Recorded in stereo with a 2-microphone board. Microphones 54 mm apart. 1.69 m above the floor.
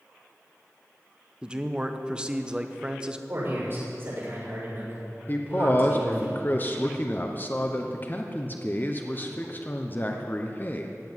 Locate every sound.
1.4 s a man speaking: 15° right (ahead or behind), 0.9 m
3.3 s a man speaking: 45° right (ahead or behind), 6.5 m
5.3 s a man speaking: 35° left (ahead or behind), 0.9 m